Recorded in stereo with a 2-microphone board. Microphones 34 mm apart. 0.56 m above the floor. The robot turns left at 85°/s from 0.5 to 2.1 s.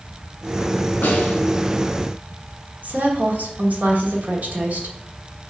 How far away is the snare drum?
About 2 m.